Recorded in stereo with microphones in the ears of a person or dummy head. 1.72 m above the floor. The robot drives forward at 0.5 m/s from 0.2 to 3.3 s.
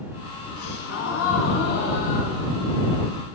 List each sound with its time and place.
0.6 s a gasp: 70° left (ahead or behind), 1.0 m; by 3.2 s 30° left (ahead or behind), 1.8 m